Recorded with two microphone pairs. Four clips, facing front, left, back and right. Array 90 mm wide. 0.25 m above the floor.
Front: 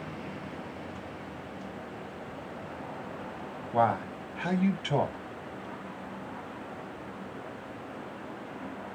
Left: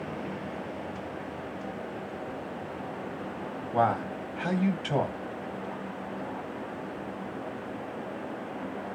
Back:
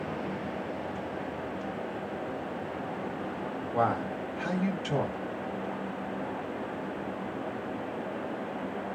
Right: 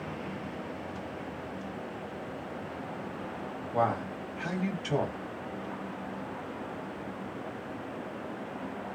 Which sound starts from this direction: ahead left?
A man speaking, at 3.7 s.